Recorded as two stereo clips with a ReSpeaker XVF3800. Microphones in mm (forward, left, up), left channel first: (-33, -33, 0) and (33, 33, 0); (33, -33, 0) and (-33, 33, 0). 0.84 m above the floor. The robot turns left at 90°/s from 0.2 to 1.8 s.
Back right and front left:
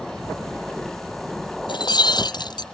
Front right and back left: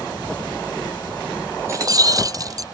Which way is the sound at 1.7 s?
165° right.